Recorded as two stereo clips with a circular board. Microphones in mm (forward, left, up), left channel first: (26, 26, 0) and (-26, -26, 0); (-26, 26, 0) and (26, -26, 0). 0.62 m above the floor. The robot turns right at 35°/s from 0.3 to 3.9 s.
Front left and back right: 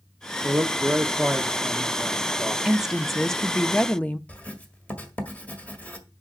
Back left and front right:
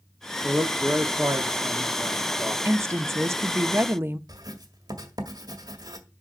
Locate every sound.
0.4 s a man speaking: 100° right, 1.0 m; by 2.5 s 25° right, 1.0 m
2.6 s a woman speaking: 55° right, 0.7 m; by 4.2 s 15° right, 0.7 m
4.3 s writing: 25° right, 1.8 m